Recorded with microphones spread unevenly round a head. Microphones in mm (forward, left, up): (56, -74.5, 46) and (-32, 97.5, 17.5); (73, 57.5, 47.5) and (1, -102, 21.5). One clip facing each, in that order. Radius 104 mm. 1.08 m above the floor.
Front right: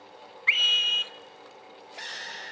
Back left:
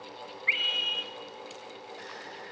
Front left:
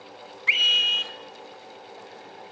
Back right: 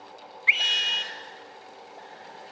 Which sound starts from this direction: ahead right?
A scream, at 0.5 s.